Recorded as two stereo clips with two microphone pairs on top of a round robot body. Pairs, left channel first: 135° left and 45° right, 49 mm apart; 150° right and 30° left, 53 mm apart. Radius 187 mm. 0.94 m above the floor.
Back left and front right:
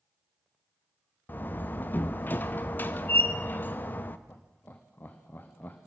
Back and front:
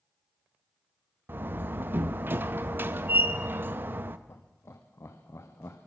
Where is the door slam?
80° left, 0.8 m.